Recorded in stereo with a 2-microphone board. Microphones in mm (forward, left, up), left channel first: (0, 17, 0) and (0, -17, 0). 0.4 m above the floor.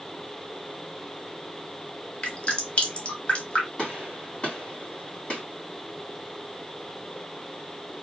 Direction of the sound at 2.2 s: 35° left (ahead or behind).